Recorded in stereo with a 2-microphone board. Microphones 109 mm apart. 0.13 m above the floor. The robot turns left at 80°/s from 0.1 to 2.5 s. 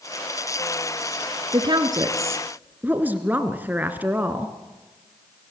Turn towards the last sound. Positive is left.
turn(degrees=-155)